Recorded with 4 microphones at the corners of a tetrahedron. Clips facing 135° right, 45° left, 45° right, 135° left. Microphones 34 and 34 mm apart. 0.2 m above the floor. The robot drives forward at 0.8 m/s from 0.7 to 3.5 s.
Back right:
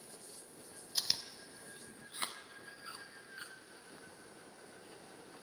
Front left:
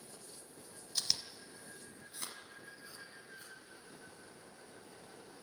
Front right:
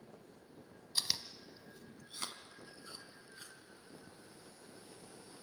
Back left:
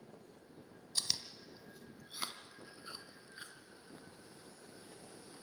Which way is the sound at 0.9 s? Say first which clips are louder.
Even, front right 1 dB; 70° right.